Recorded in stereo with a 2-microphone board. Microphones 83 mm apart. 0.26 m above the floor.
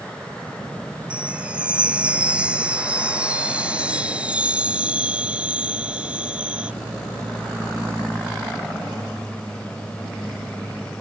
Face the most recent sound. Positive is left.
turn(degrees=-10)  # may be behind; listen again after turning